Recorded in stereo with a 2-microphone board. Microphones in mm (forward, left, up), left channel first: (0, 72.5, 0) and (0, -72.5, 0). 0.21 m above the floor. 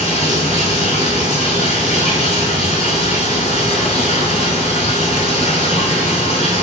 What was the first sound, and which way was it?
Running water, 45° left (ahead or behind).